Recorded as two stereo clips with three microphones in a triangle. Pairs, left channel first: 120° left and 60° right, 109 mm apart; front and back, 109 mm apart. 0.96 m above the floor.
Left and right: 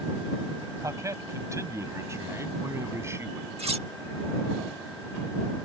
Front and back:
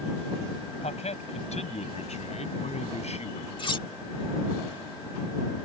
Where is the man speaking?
Straight ahead; by 3.5 s 5° left.